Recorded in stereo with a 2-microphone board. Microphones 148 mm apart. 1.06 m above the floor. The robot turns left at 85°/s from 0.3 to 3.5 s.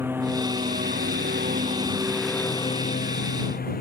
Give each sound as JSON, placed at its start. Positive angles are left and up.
{"t": 0.0, "sound": "a lawn mower", "azimuth_deg": -15}